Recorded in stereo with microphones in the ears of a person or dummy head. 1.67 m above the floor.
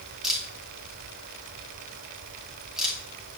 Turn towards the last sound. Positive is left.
turn(degrees=-5)  # may be behind; listen again after turning